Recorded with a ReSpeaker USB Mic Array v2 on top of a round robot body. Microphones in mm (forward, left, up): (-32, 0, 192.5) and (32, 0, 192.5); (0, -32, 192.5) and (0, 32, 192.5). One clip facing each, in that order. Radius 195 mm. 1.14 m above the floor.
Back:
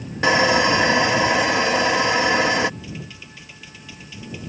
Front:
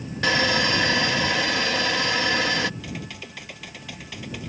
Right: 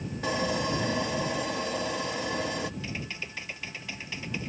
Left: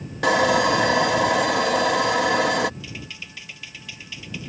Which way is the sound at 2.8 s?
35° right.